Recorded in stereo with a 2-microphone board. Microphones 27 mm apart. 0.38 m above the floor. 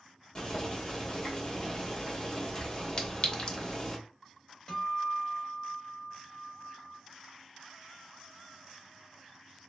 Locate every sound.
0.3 s boiling: 25° left (ahead or behind), 0.9 m
3.0 s a clink: 40° left (ahead or behind), 0.7 m
4.7 s a guitar: 25° left (ahead or behind), 1.4 m